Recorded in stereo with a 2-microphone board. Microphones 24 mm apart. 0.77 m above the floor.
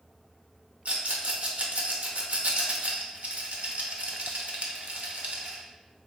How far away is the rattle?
About 0.7 m.